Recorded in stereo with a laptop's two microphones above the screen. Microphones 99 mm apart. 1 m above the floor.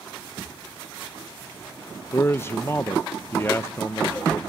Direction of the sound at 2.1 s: 25° left (ahead or behind).